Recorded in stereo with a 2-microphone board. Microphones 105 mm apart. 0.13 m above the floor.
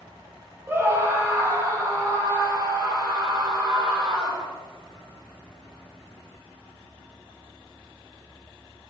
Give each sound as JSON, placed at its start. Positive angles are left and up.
{"t": 0.7, "sound": "a scream", "side_deg": -25, "distance_m": 4.5}